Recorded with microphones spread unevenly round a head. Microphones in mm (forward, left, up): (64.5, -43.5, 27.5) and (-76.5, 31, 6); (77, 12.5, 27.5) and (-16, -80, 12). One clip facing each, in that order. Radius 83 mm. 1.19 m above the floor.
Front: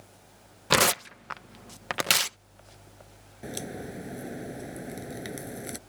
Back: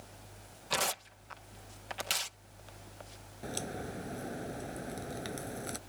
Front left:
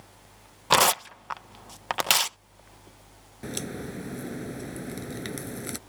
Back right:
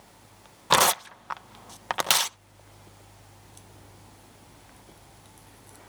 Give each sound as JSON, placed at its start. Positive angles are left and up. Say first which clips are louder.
{"t": 0.7, "sound": "tearing paper", "louder": "front 11 dB, even", "azimuth_deg": -40}
{"t": 3.4, "sound": "a crack", "louder": "front 3 dB, front left 22 dB", "azimuth_deg": 45}